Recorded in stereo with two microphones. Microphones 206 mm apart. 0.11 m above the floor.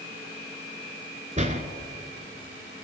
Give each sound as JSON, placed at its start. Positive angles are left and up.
{"t": 1.4, "sound": "a door slam", "side_deg": -35, "distance_m": 0.9}